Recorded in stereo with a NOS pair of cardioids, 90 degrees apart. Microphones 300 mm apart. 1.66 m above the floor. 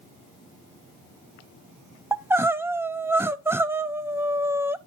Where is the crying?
10° right, 0.5 m.